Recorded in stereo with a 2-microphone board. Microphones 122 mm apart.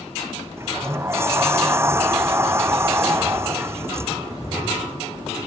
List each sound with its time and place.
0.6 s a sliding door: 20° right (ahead or behind)